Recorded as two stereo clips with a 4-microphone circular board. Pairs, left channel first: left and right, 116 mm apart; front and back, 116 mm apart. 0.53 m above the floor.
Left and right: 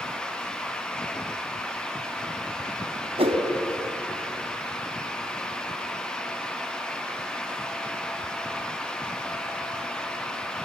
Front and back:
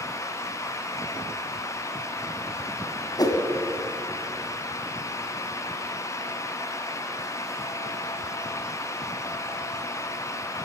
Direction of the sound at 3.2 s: 55° right.